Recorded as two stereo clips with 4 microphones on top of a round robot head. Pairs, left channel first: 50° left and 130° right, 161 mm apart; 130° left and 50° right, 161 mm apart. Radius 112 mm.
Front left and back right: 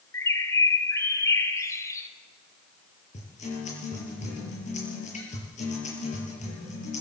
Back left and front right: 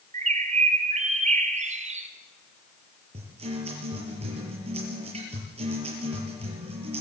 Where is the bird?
20° right, 1.8 m.